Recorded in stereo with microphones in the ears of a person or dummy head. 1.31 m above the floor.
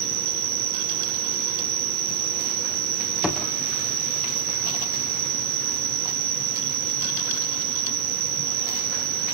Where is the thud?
Centre (ahead or behind), 7.5 m.